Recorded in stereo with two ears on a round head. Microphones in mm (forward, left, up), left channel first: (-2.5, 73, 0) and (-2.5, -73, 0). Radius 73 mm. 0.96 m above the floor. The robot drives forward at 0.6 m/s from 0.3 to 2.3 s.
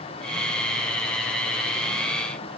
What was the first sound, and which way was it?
Only background noise.